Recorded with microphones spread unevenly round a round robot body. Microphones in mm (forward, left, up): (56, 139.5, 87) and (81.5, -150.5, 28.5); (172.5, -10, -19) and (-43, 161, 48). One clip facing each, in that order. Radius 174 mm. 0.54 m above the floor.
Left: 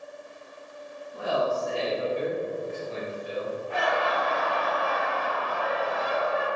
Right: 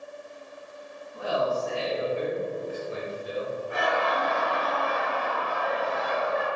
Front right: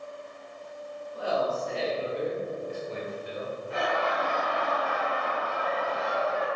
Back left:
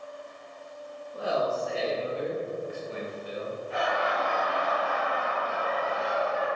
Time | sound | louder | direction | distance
1.1 | a man speaking | even, even | 75° left | 1.7 m
3.7 | laughter | even, front right 1 dB | 20° right | 2 m